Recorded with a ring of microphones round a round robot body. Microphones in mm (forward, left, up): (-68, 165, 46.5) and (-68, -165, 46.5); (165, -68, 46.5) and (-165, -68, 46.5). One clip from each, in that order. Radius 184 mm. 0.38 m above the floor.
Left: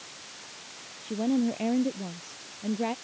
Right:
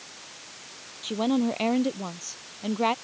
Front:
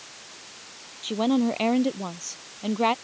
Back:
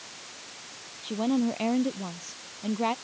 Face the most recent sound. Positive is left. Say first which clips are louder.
# right 3 dB, front 4 dB
turn(degrees=-40)